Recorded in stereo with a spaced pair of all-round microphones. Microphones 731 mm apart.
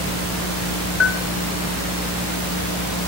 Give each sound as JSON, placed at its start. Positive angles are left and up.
{"t": 1.0, "sound": "a bell", "side_deg": 65, "distance_m": 1.2}